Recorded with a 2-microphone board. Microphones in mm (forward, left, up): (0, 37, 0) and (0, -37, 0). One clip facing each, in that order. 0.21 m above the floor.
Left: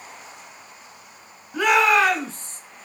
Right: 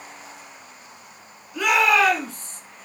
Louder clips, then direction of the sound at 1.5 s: Left 1 dB; 35° left (ahead or behind).